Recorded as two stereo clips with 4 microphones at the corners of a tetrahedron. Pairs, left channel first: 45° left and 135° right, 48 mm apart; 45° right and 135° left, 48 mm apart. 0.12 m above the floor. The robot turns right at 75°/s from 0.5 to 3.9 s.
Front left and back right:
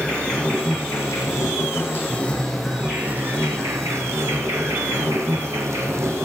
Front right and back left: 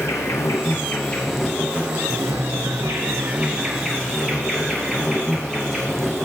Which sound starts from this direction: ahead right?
An insect, at 0.0 s.